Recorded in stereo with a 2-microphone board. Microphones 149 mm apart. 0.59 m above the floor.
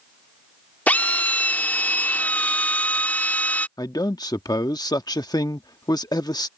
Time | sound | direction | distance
0.9 | a drill | 10° left (ahead or behind) | ?
3.8 | a man speaking | 25° left (ahead or behind) | ?